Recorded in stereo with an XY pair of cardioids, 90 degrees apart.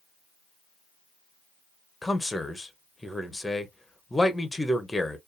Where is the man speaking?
15° left, 0.8 m.